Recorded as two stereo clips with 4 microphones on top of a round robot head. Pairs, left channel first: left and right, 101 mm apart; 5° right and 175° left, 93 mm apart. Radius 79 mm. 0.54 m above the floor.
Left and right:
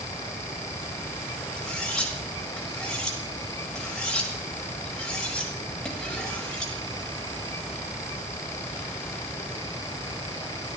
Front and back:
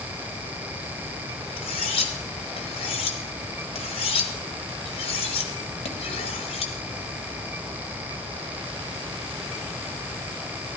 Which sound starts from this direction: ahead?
Cutlery clinking, at 1.6 s.